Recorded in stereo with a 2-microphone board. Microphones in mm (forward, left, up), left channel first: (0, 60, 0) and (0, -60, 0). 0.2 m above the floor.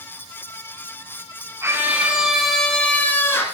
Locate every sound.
1.6 s a scream: 20° right (ahead or behind), 2 m; by 3.5 s 20° left (ahead or behind), 3 m